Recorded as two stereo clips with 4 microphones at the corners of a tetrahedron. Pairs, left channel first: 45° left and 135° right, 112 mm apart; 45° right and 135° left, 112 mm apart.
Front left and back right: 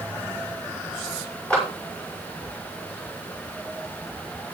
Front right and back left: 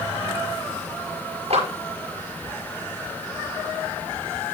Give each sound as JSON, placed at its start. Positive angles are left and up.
{"t": 1.5, "sound": "a clap", "azimuth_deg": 125, "distance_m": 5.5}